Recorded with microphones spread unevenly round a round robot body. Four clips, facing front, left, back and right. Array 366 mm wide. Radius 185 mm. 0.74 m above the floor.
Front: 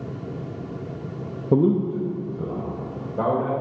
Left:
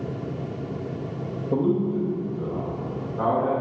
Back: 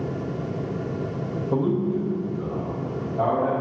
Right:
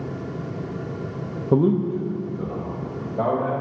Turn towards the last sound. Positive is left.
turn(degrees=-35)